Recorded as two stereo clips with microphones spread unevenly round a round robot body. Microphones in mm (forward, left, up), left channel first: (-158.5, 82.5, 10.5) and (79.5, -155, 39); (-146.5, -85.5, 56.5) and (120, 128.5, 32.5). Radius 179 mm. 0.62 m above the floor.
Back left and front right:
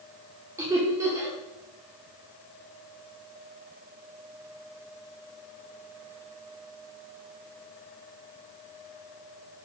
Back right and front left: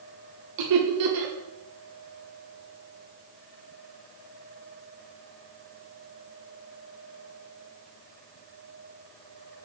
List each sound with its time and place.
0.6 s laughter: 40° left, 1.2 m